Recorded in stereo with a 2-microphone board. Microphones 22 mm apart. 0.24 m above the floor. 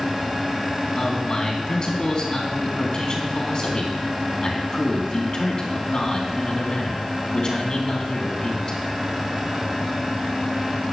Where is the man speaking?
40° left (ahead or behind), 2.5 m.